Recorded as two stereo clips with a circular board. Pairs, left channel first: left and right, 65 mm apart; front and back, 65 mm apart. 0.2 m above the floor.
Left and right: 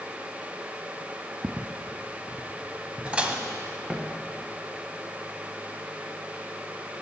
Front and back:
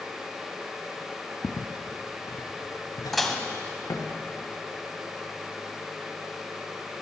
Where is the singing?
I don't hear singing.